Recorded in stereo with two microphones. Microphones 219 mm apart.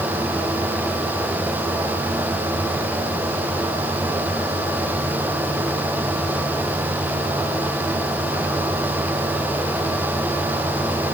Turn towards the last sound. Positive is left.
No sound to turn to.